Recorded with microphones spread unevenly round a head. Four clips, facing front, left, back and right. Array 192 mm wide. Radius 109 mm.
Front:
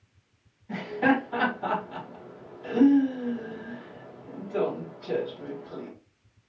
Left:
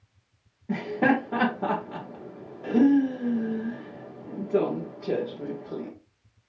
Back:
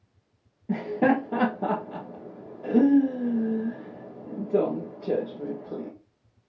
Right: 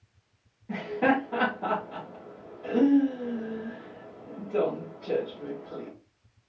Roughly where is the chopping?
I don't hear chopping.